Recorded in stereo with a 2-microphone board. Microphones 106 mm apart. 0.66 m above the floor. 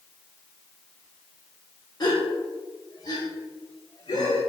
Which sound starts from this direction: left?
A gasp, at 2.0 s.